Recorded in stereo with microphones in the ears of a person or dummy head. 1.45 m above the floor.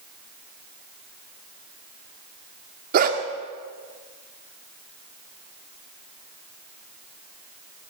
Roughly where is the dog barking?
Right.